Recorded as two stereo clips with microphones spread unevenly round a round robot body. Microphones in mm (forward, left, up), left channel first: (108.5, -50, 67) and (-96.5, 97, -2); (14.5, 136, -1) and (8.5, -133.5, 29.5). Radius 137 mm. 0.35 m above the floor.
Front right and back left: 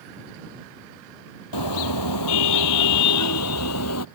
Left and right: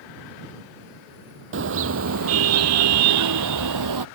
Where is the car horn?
45° right; by 4.0 s 75° right.